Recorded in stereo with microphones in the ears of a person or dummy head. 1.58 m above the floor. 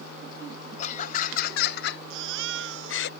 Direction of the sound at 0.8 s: 45° left (ahead or behind).